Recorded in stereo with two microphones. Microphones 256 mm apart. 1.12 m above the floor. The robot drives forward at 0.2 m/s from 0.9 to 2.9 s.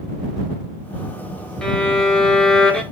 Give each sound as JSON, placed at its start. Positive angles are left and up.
{"t": 1.6, "sound": "a violin", "side_deg": 0, "distance_m": 0.7}